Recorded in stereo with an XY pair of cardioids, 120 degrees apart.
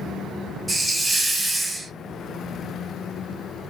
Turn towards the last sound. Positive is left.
turn(degrees=-10)